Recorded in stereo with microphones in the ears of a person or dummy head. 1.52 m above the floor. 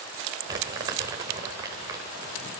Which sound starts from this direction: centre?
Crumpling, at 0.5 s.